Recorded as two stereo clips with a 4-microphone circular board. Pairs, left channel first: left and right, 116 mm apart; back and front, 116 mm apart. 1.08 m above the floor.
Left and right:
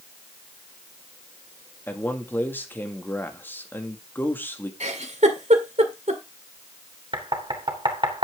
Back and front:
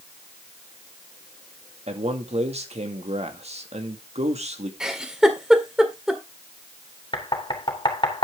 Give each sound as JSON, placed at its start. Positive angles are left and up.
{"t": 1.9, "sound": "a man speaking", "azimuth_deg": 15, "distance_m": 2.0}
{"t": 4.8, "sound": "a giggle", "azimuth_deg": -85, "distance_m": 2.0}
{"t": 7.1, "sound": "knocking", "azimuth_deg": -135, "distance_m": 3.0}